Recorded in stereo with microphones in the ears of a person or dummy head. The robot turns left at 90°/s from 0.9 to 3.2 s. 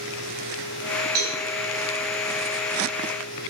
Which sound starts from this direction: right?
A cowbell, at 1.1 s.